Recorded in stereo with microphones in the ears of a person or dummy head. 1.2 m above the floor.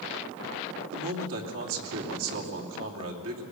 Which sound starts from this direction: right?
A man speaking, at 0.9 s.